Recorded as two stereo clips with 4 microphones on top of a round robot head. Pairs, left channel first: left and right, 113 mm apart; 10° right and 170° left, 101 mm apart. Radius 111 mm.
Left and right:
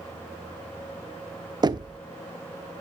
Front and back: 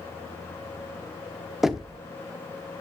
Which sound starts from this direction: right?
Knocking, at 1.6 s.